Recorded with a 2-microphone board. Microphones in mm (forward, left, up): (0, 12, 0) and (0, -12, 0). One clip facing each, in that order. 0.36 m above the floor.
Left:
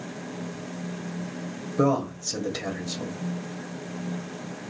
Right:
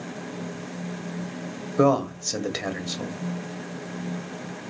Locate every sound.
1.8 s a man speaking: 40° right (ahead or behind), 1.2 m